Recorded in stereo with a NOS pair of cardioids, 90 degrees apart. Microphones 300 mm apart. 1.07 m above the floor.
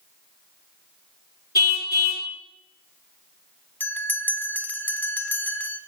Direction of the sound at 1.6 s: 35° left.